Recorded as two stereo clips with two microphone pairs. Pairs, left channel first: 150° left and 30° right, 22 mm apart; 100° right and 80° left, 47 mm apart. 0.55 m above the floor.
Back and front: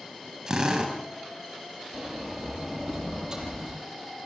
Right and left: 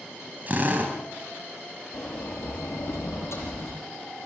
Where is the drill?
30° left, 3.5 m.